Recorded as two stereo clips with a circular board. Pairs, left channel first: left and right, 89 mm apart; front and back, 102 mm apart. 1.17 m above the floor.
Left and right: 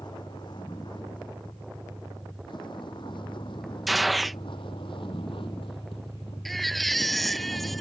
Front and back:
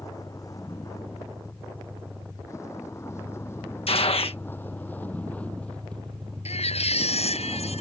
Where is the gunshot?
Straight ahead.